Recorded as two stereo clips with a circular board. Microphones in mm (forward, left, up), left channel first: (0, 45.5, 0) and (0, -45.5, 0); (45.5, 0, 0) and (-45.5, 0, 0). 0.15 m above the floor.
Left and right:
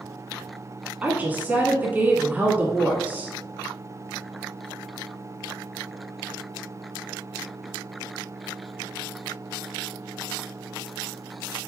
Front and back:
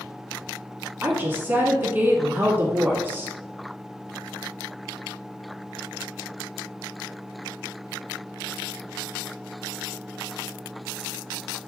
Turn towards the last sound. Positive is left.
turn(degrees=-140)